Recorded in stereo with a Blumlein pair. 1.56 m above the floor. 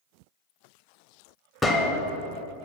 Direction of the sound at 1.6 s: 5° left.